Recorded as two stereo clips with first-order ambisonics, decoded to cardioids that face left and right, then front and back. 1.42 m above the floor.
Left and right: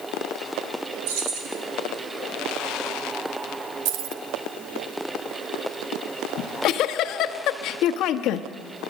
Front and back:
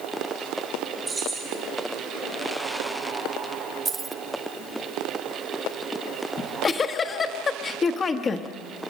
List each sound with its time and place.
1.1 s keys jangling: 100° right, 5 m
3.9 s keys jangling: 110° right, 0.9 m
6.4 s a giggle: 65° left, 1.1 m